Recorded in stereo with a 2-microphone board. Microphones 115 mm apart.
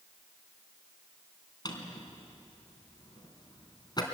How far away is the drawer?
About 3 m.